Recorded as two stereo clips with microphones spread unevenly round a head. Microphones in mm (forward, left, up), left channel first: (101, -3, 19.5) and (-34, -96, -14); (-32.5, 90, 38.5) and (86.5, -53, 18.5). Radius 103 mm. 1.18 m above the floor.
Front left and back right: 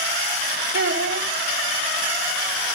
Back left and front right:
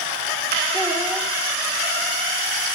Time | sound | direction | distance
0.7 | a child speaking | 130° right | 1.2 m